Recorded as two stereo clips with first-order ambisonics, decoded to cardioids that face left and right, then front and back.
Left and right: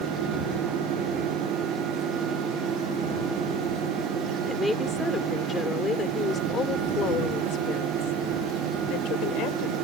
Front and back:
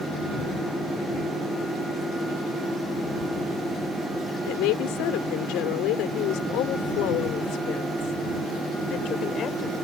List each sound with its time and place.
4.5 s a woman speaking: 5° left; by 9.8 s 55° left